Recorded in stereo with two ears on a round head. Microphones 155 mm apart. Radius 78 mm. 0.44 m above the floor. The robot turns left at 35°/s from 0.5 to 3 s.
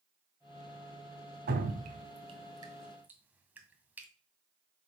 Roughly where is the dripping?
Right.